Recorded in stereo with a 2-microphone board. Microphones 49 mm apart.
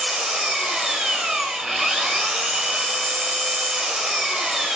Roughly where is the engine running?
Centre.